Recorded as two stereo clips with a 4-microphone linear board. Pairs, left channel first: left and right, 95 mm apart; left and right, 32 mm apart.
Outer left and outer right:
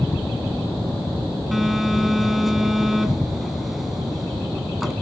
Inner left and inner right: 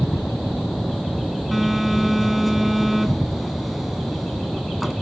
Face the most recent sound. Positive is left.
turn(degrees=-5)  # may be behind; listen again after turning